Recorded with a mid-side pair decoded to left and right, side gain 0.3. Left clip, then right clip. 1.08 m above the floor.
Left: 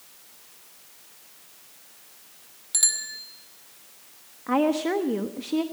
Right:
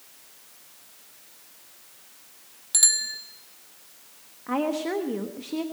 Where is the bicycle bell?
30° right, 2 m.